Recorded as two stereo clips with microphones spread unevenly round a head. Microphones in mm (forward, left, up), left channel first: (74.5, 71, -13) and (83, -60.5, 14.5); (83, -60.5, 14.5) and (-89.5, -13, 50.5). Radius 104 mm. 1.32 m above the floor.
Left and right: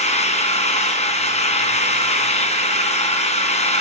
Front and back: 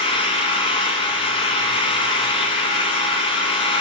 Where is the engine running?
55° left, 3.5 m.